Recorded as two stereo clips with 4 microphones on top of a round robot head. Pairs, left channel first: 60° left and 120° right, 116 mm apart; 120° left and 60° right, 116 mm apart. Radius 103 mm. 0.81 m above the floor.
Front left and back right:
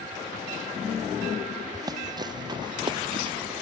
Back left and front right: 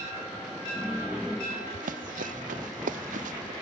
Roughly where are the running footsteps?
Ahead right.